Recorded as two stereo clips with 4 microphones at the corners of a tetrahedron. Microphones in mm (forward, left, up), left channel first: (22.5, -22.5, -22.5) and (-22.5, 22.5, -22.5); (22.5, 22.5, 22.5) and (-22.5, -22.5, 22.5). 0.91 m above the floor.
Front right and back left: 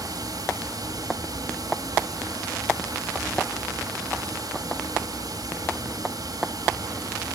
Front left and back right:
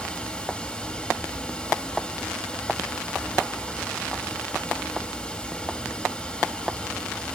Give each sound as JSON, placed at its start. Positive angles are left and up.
{"t": 0.0, "sound": "running water", "azimuth_deg": 120, "distance_m": 2.5}